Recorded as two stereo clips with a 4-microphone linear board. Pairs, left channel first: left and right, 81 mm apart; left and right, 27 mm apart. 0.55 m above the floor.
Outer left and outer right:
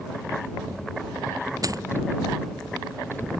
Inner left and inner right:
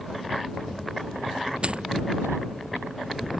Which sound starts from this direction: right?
A dropped coin, at 1.6 s.